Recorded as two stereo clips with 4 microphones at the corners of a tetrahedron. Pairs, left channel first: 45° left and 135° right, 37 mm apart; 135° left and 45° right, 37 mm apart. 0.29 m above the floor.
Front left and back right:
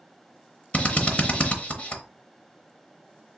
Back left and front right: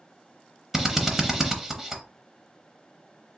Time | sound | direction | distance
0.7 | a drill | 30° left | 0.7 m